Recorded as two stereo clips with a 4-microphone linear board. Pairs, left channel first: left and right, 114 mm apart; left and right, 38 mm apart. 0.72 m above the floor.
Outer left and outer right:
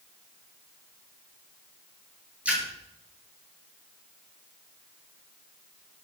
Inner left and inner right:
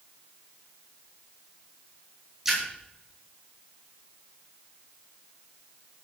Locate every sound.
2.5 s a splash: 10° right (ahead or behind), 7 m